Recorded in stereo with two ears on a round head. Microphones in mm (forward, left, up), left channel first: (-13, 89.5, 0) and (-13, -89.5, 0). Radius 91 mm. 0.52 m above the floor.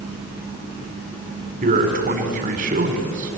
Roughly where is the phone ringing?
I don't hear a phone ringing.